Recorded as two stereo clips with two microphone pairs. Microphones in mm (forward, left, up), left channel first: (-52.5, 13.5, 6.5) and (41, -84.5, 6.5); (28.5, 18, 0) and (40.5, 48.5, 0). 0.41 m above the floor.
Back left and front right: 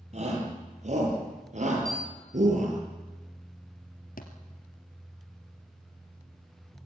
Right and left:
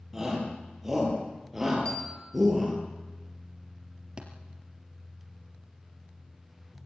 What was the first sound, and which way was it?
A shout, 10° right.